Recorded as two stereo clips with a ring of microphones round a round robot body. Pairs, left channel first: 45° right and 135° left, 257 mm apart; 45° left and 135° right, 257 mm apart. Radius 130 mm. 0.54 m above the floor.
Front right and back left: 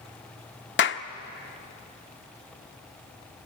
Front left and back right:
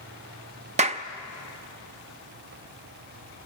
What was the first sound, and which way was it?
A clap, 75° right.